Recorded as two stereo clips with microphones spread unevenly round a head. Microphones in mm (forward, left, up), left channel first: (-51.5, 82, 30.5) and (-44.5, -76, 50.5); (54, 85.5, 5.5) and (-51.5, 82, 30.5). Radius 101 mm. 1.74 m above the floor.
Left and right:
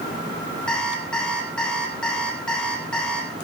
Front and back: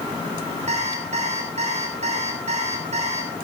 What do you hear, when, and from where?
0.7 s an alarm clock: straight behind, 8 m